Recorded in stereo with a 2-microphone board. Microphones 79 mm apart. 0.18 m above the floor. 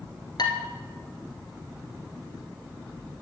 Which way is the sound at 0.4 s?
65° left (ahead or behind).